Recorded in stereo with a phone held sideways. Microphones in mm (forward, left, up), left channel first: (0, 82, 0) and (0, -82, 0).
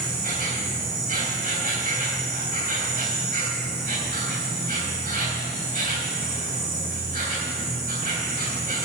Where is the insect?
60° right (ahead or behind), 3.5 m.